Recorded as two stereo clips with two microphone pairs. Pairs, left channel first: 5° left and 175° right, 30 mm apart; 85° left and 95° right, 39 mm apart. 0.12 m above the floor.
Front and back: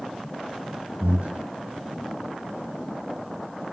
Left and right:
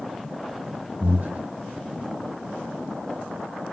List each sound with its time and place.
1.0 s breathing: 145° right, 1.5 m